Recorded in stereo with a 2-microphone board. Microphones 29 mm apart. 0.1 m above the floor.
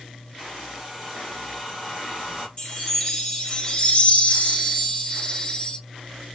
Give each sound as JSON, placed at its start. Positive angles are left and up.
{"t": 0.4, "sound": "a hair dryer", "side_deg": -5, "distance_m": 1.7}
{"t": 2.6, "sound": "a chime", "side_deg": 25, "distance_m": 1.9}